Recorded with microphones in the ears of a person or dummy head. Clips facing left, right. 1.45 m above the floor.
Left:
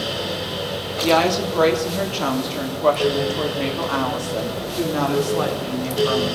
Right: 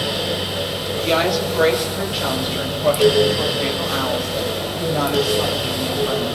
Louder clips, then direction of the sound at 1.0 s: Left 2 dB; 70° left (ahead or behind).